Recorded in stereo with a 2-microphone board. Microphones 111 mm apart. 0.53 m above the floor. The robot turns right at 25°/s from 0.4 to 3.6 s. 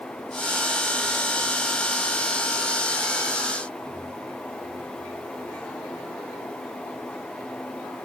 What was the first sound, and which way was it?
Only background noise.